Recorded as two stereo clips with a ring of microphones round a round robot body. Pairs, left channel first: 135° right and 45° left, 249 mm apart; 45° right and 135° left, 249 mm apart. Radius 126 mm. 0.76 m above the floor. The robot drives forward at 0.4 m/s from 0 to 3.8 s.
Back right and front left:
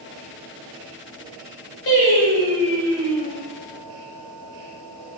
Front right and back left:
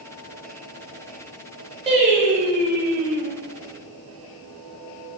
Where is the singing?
160° right, 0.9 m; by 3.3 s 170° right, 1.4 m.